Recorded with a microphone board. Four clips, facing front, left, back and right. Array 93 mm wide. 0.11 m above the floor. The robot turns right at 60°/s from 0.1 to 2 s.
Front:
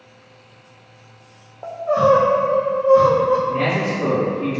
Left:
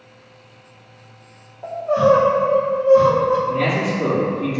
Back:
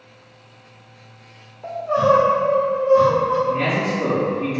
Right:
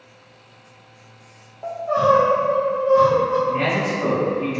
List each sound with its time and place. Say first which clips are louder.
1.6 s crying: left 2 dB, front 2 dB; 10° right, 1.2 m; by 3.4 s 10° left, 1.2 m
3.5 s a man speaking: left 1 dB, even; 70° right, 2.0 m